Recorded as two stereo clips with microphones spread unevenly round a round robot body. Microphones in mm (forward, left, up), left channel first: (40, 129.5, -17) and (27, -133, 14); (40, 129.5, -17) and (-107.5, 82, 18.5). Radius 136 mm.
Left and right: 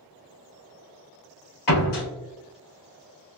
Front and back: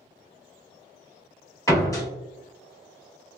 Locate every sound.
1.7 s a door slam: 90° left, 1.8 m